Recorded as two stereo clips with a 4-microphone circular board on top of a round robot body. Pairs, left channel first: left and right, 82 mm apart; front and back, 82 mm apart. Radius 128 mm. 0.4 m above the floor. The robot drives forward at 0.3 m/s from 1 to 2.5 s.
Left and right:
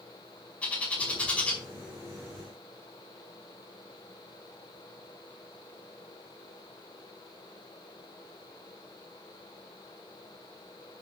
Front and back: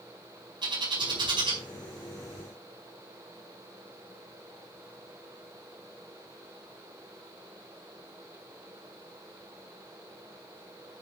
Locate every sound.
0.6 s a bird: 165° left, 4.5 m